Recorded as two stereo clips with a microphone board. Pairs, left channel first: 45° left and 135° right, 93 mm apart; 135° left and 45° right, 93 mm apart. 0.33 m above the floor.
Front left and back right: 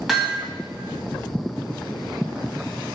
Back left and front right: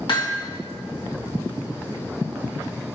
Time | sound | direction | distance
0.1 | hammering | 135° left | 1.7 m